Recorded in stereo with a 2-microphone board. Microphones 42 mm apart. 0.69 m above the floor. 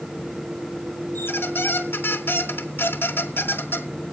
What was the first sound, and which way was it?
A squeak, 65° left (ahead or behind).